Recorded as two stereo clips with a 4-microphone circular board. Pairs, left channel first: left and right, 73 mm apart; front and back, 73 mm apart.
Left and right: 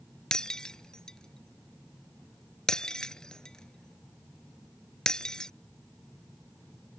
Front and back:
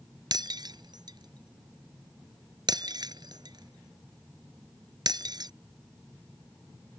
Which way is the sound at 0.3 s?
170° left.